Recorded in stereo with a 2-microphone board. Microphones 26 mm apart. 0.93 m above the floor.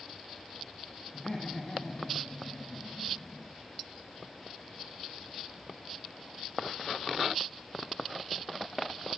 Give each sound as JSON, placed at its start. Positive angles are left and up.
{"t": 1.1, "sound": "laughter", "side_deg": 50, "distance_m": 1.4}